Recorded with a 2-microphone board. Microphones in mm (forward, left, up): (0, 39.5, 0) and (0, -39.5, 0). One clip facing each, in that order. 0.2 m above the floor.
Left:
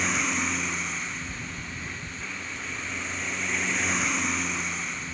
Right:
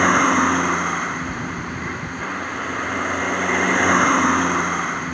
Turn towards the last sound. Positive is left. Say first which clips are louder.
# right 13 dB
turn(degrees=-50)  # may be behind; listen again after turning